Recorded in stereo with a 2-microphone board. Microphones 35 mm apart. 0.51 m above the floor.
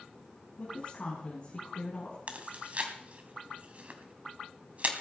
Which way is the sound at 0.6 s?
35° left (ahead or behind).